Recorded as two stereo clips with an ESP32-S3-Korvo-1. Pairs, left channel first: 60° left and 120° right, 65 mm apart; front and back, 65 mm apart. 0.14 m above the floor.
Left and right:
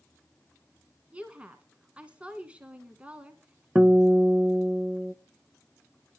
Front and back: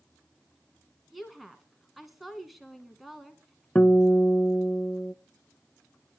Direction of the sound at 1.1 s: 90° right.